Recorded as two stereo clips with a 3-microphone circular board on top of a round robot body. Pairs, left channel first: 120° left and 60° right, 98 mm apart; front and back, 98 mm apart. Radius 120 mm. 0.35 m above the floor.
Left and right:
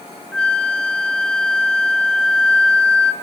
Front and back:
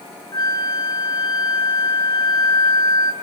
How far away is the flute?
About 2.5 m.